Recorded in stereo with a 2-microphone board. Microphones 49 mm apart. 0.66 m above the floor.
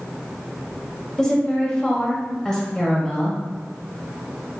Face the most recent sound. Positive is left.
turn(degrees=15)  # may be behind; listen again after turning